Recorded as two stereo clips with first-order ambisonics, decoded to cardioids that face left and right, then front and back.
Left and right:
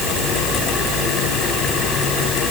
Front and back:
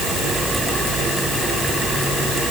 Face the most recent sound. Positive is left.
No sound to turn to.